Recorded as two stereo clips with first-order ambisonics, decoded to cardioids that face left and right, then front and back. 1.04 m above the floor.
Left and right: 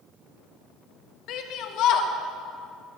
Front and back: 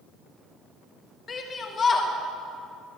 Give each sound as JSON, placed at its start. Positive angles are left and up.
{"t": 1.3, "sound": "a shout", "azimuth_deg": 60, "distance_m": 0.9}